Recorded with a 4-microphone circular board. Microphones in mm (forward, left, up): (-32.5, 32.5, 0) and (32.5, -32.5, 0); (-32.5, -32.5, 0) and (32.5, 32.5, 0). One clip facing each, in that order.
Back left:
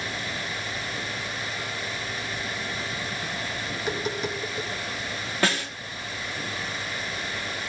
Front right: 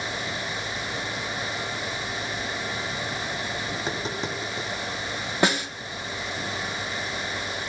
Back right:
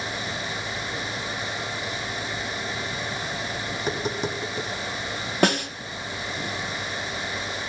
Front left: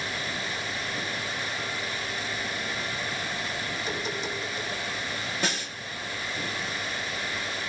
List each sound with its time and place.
3.7 s tapping: 105° right, 4 m
5.4 s a snare drum: 115° right, 1.2 m